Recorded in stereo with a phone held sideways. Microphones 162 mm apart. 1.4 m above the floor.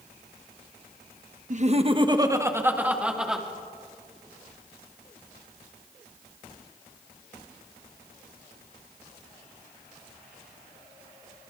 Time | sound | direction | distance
1.5 | laughter | 50° right (ahead or behind) | 1.3 m